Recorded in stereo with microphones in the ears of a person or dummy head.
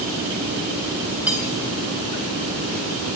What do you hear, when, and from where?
1.3 s cutlery clinking: 10° right (ahead or behind), 2.5 m